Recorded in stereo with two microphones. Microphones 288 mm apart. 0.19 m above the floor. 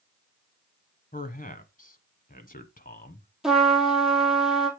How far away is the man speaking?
About 1.2 m.